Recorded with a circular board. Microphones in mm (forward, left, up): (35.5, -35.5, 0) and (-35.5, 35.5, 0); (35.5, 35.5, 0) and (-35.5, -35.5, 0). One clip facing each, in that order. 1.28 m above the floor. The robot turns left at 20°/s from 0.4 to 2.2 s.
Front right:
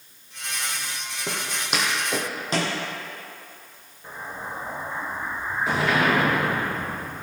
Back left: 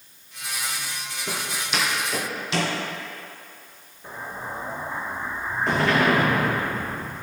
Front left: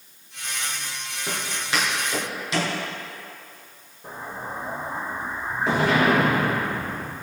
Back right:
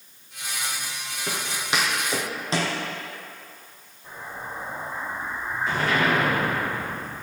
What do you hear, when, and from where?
1.3 s footsteps: 50° right, 2.5 m; by 2.8 s 90° right, 2.5 m
4.0 s an explosion: 40° left, 3 m